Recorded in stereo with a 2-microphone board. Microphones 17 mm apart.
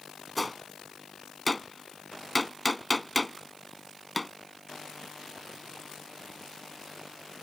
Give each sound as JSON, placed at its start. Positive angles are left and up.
{"t": 0.4, "sound": "a gunshot", "side_deg": 0}